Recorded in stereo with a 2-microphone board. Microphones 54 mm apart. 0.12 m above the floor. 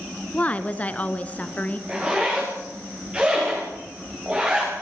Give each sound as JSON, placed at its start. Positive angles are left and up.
{"t": 0.3, "sound": "a woman speaking", "side_deg": 25, "distance_m": 1.2}
{"t": 1.9, "sound": "a zipper", "side_deg": -20, "distance_m": 7.5}